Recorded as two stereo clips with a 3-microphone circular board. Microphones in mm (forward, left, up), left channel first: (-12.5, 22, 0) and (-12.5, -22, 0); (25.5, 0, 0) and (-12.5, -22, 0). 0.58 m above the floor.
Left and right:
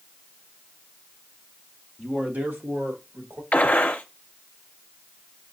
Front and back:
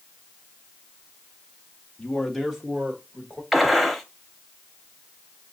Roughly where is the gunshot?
Behind left.